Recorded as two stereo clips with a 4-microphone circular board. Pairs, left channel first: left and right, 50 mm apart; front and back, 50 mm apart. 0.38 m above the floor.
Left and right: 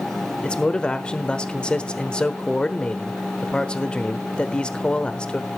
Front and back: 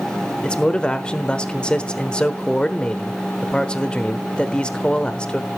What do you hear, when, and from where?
0.4 s a man speaking: 45° left, 1.1 m